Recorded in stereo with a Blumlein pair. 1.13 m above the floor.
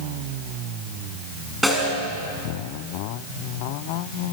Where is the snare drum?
Straight ahead, 5.5 m.